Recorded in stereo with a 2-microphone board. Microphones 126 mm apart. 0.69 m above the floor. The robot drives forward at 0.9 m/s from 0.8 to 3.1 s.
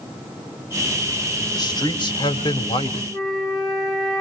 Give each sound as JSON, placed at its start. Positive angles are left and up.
{"t": 1.5, "sound": "a man speaking", "side_deg": 30, "distance_m": 3.0}
{"t": 3.1, "sound": "a flute", "side_deg": 5, "distance_m": 6.0}